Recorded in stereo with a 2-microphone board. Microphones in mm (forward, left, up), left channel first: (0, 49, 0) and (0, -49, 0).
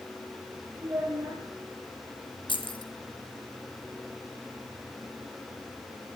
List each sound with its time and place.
0.8 s a child speaking: 35° right (ahead or behind), 9 m
2.5 s keys jangling: 65° left (ahead or behind), 2 m